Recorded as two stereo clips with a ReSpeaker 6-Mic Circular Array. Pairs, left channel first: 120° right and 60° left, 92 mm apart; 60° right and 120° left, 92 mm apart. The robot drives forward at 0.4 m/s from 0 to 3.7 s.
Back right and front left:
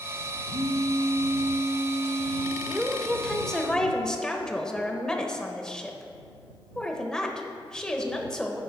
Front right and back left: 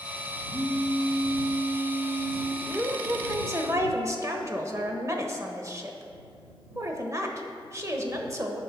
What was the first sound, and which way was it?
A phone buzzing, 55° left.